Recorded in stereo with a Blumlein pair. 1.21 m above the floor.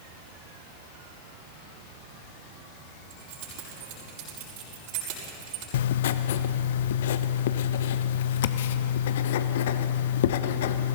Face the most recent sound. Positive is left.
turn(degrees=55)